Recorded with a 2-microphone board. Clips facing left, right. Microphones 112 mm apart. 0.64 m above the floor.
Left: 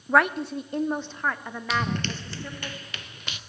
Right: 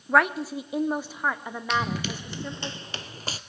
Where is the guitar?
I don't hear a guitar.